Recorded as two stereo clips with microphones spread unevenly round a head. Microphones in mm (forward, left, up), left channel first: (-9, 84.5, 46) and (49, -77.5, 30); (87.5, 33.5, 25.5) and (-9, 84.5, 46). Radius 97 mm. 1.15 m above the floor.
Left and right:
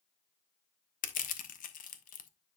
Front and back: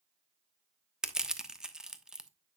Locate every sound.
1.0 s crushing: 65° left, 1.2 m